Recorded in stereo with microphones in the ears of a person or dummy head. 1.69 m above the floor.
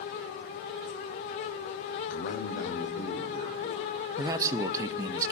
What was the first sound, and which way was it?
A man speaking, 60° left (ahead or behind).